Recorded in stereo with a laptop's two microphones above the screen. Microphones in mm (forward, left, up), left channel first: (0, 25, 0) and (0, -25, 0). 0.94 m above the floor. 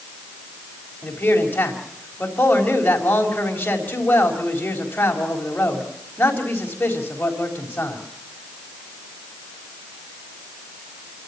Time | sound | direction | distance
1.0 | a man speaking | 35° left (ahead or behind) | 4 m